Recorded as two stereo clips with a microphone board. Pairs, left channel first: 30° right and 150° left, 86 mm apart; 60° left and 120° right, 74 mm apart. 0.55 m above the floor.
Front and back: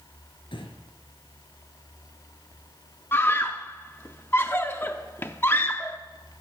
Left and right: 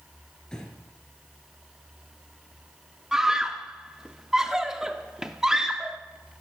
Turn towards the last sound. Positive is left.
turn(degrees=-45)